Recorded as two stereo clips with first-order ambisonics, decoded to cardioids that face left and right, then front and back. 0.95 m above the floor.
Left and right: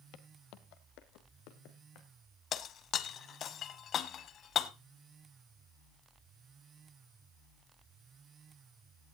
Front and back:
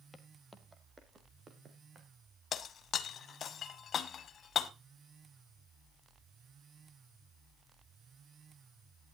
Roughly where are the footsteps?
Left.